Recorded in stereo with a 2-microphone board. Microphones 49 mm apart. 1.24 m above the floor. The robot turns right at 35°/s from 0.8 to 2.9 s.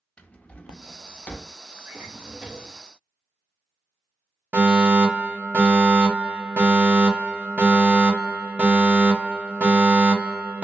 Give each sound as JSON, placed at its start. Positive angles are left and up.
{"t": 0.2, "sound": "a drawer", "side_deg": 25, "distance_m": 0.5}
{"t": 1.9, "sound": "a drawer", "azimuth_deg": -50, "distance_m": 0.8}
{"t": 4.5, "sound": "a fire alarm", "side_deg": -35, "distance_m": 1.3}